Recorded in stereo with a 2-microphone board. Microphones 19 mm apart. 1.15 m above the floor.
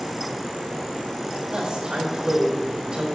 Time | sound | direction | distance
1.5 | a woman speaking | 40° right (ahead or behind) | 5.5 m